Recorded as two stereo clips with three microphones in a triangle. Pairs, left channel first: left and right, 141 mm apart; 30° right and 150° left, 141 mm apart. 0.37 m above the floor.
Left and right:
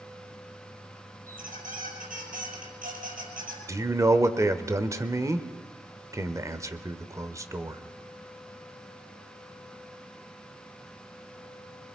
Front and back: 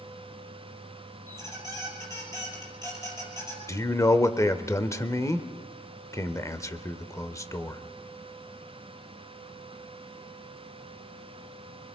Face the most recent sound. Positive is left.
turn(degrees=-60)